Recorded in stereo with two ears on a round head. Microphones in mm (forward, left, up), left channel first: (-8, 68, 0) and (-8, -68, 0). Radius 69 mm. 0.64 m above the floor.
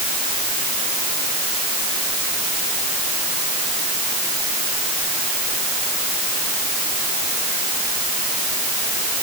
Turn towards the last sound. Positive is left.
No sound to turn to.